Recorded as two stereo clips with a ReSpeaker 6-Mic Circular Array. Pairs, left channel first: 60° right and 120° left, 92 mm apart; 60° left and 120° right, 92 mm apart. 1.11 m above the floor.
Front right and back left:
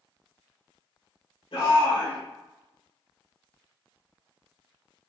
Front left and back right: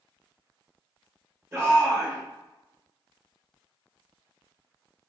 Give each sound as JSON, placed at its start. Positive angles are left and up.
{"t": 1.5, "sound": "a shout", "azimuth_deg": -60, "distance_m": 1.6}